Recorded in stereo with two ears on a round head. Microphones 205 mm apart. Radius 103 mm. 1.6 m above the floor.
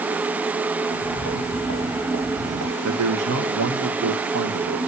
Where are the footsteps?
70° right (ahead or behind), 4 m; by 2.7 s 60° right (ahead or behind), 3 m.